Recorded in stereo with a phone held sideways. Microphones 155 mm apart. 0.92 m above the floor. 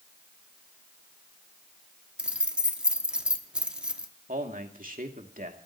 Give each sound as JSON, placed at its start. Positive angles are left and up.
{"t": 2.2, "sound": "keys jangling", "side_deg": -5, "distance_m": 1.2}
{"t": 4.3, "sound": "a man speaking", "side_deg": -65, "distance_m": 2.0}